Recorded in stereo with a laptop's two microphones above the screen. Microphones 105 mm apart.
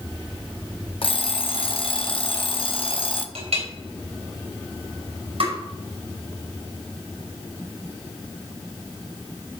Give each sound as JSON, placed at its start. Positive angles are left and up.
{"t": 1.0, "sound": "an alarm clock", "side_deg": 55, "distance_m": 0.8}
{"t": 3.4, "sound": "a clink", "side_deg": -80, "distance_m": 3.0}
{"t": 5.4, "sound": "tapping", "side_deg": -65, "distance_m": 5.5}